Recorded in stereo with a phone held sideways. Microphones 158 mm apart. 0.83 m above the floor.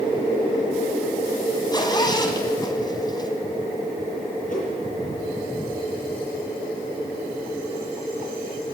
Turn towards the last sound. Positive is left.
turn(degrees=55)  # may be behind; listen again after turning